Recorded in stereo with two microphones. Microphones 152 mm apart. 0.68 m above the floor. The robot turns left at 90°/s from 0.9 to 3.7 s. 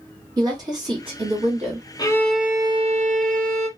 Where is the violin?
30° left, 0.6 m; by 3.7 s 120° right, 0.6 m.